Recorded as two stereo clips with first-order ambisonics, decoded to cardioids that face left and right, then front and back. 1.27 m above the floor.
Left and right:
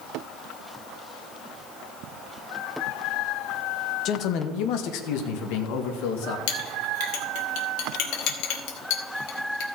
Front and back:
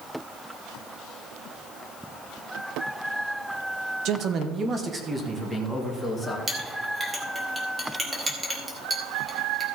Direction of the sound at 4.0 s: 140° left.